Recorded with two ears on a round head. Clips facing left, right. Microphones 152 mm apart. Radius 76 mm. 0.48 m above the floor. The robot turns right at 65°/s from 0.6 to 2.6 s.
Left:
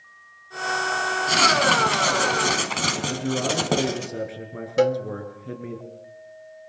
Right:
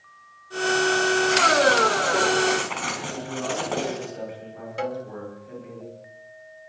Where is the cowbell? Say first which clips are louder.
Left 10 dB; 50° left (ahead or behind), 0.9 m.